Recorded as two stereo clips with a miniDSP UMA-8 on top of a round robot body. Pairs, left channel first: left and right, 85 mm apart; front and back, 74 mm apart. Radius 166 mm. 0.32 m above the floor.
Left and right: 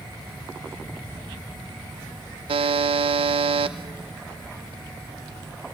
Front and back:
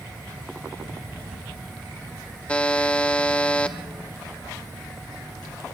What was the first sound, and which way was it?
A buzzer, 75° right.